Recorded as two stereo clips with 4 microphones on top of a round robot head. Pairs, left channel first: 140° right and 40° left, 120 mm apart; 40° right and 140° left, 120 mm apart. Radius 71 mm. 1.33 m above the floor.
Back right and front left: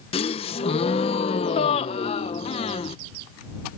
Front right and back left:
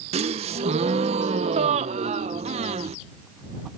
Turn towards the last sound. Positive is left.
turn(degrees=175)